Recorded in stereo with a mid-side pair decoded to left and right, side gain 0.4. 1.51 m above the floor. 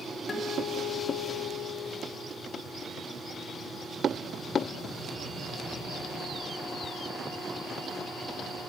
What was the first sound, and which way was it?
A guitar, 50° left.